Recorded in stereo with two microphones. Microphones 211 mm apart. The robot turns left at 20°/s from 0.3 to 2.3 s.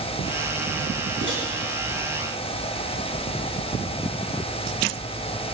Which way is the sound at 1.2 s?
60° right (ahead or behind).